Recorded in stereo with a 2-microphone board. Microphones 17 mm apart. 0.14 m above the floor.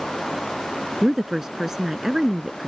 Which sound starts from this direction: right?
A woman speaking, at 1.0 s.